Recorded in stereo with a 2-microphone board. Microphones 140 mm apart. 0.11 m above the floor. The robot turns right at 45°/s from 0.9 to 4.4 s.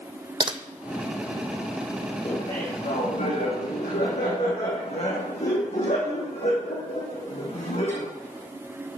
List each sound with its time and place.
0.4 s typing on a keyboard: 35° right (ahead or behind), 1.2 m
2.2 s laughter: 25° left, 5 m; by 8.1 s 125° left, 5 m